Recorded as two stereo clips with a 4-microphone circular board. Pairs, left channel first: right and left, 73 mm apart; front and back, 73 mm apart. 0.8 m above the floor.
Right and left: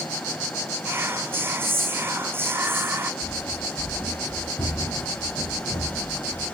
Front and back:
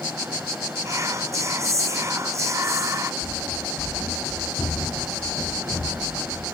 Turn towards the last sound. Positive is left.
turn(degrees=-85)